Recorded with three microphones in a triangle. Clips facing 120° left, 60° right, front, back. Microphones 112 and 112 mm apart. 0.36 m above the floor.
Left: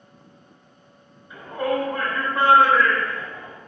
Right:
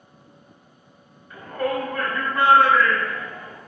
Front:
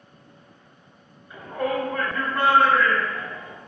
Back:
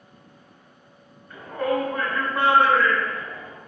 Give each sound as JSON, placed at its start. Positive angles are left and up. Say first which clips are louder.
{"t": 1.3, "sound": "a shout", "louder": "left 1 dB, back 1 dB", "azimuth_deg": 65, "distance_m": 1.6}